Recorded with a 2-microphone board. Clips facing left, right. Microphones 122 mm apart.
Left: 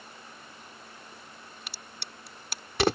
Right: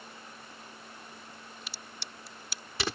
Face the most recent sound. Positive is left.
turn(degrees=60)  # may be behind; listen again after turning